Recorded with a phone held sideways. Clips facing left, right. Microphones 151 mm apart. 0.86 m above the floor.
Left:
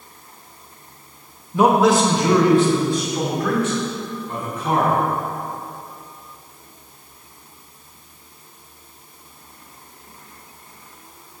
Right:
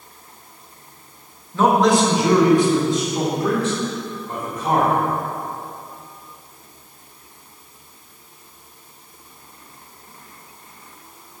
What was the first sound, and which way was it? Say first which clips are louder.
A man speaking: left 1 dB; 15° left (ahead or behind).